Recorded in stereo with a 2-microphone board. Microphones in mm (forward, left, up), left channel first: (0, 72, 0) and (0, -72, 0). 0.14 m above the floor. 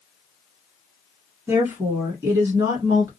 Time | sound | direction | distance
1.5 | a woman speaking | 20° right (ahead or behind) | 1.2 m